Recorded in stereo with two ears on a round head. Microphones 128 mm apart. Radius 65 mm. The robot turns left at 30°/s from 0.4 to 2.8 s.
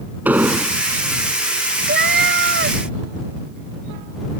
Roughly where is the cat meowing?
Right.